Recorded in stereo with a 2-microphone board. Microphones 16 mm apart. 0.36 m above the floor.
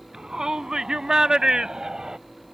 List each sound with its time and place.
0.1 s a shout: 55° right (ahead or behind)